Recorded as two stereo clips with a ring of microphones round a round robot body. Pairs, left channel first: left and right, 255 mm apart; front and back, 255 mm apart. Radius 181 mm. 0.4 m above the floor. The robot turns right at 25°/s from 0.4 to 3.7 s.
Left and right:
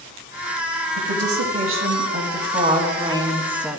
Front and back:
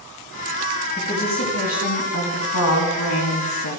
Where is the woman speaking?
70° right, 4.5 m; by 3.8 s straight ahead, 4.5 m.